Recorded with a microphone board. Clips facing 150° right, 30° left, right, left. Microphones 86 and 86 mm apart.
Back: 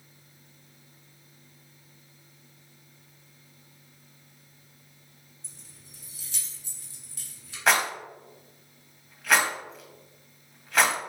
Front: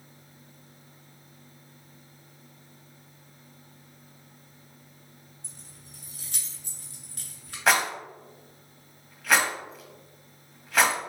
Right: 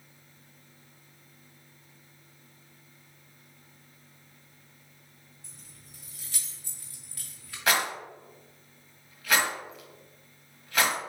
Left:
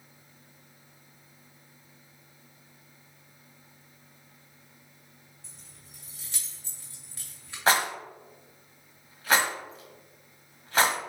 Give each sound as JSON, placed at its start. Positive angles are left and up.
{"t": 5.4, "sound": "keys jangling", "azimuth_deg": 25, "distance_m": 1.6}
{"t": 7.7, "sound": "a rattle", "azimuth_deg": 120, "distance_m": 0.8}